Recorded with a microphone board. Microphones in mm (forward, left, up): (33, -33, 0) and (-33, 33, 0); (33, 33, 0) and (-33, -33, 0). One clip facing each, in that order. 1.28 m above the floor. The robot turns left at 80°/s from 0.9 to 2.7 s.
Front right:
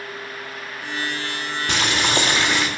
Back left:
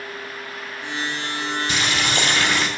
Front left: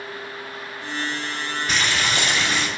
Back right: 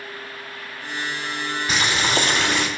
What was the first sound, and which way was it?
Boiling, 45° right.